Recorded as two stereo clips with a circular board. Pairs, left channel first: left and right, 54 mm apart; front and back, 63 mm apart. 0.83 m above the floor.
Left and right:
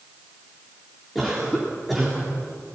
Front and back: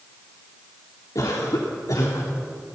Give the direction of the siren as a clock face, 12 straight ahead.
I don't hear a siren.